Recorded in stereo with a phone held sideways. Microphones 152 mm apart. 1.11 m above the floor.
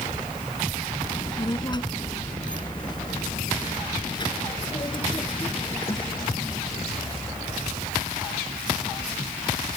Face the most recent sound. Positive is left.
turn(degrees=30)  # may be behind; listen again after turning